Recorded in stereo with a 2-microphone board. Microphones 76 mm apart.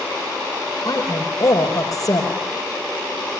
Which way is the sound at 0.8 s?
50° left (ahead or behind).